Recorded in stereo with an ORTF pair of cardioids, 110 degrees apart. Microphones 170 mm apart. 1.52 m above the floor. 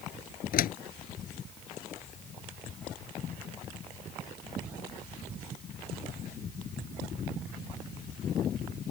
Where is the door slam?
55° left.